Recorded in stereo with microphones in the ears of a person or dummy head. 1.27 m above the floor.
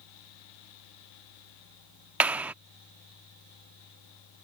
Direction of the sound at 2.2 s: Centre (ahead or behind).